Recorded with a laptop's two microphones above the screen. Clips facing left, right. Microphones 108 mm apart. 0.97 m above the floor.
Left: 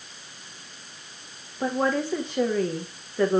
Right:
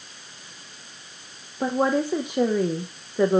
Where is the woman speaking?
15° right (ahead or behind), 0.7 m.